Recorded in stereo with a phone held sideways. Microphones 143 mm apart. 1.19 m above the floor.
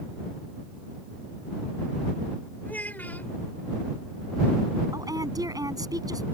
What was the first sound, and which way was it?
A child speaking, 10° left (ahead or behind).